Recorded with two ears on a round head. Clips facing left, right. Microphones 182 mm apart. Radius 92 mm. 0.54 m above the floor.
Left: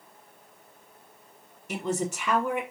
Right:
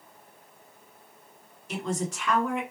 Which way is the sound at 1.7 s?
20° left (ahead or behind).